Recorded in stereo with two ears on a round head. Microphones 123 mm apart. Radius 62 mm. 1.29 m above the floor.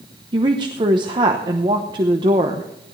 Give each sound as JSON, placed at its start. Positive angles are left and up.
{"t": 0.3, "sound": "a woman speaking", "side_deg": -35, "distance_m": 0.9}